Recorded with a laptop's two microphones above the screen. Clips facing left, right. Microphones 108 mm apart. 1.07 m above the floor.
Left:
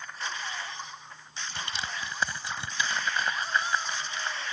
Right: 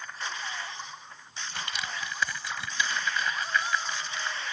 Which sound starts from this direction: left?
Crushing, at 1.6 s.